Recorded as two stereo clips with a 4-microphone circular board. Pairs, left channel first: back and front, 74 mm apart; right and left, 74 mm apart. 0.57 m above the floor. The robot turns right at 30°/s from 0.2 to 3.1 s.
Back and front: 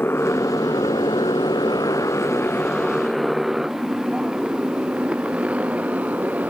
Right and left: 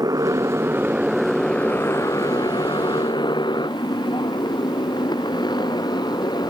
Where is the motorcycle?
120° left; by 6.5 s 70° right.